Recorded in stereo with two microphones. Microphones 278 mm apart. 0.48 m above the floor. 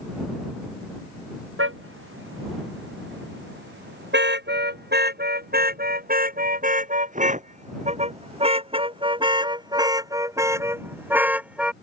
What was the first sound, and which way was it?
A car horn, 45° right (ahead or behind).